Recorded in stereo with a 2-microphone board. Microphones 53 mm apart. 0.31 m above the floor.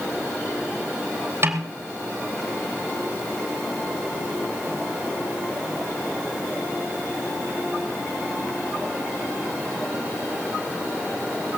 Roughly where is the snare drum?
Right.